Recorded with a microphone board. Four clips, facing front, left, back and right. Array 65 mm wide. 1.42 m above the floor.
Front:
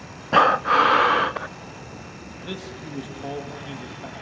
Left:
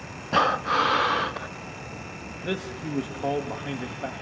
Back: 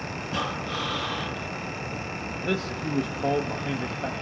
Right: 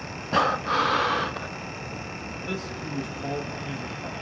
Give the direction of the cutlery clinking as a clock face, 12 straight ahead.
No cutlery clinking in this recording.